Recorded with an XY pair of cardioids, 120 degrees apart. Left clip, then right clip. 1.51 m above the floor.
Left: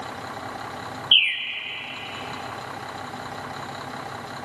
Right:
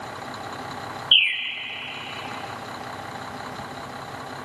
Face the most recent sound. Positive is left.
turn(degrees=0)